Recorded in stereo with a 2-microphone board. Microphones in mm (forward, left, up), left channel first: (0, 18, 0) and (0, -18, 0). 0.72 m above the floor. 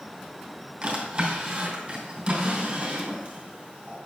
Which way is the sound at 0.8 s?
35° right (ahead or behind).